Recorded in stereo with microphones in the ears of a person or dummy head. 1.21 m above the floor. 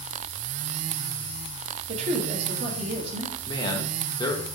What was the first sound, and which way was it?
A woman speaking, 35° right (ahead or behind).